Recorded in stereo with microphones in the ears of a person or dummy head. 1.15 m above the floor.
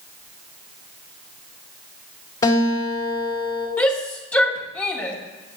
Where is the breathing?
No breathing in this recording.